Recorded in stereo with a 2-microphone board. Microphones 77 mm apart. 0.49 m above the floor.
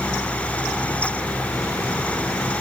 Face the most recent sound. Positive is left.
No sound to turn to.